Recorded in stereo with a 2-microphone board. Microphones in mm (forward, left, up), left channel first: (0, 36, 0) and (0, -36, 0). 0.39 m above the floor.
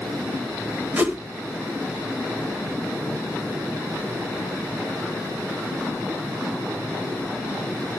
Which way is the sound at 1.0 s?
20° right (ahead or behind).